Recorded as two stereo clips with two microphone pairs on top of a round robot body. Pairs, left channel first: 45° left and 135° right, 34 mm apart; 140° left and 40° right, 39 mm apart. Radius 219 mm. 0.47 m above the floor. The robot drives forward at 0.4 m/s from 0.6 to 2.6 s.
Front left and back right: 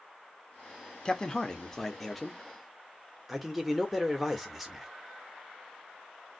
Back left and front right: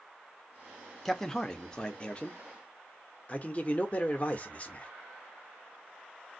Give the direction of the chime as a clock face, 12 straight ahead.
No chime in this recording.